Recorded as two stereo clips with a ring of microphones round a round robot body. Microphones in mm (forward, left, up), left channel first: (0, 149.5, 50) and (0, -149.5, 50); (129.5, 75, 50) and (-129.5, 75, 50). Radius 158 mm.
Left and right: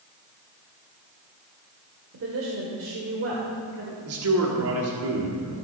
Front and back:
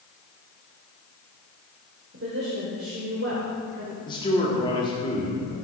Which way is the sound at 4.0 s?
70° right.